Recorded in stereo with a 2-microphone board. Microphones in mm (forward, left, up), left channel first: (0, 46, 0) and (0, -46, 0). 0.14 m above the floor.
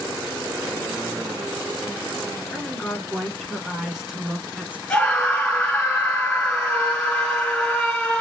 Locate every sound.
2.5 s a woman speaking: 5° left (ahead or behind), 2 m; by 4.8 s 15° right (ahead or behind), 1.4 m
4.9 s a scream: 5° left (ahead or behind), 2 m